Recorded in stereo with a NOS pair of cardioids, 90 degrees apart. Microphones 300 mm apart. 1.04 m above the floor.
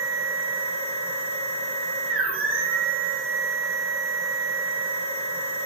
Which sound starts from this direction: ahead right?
A machine running, at 0.0 s.